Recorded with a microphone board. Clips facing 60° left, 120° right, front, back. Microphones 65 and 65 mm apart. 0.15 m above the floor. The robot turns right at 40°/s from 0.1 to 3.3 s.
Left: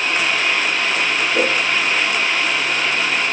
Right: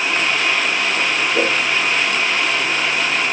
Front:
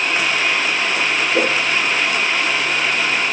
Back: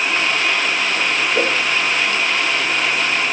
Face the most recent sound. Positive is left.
turn(degrees=75)